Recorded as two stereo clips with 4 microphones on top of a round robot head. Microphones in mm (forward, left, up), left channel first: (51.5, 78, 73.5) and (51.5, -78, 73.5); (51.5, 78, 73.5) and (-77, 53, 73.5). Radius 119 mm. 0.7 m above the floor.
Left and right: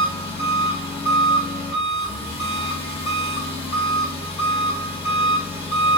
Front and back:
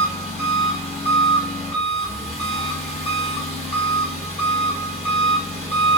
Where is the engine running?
45° left, 1.5 m.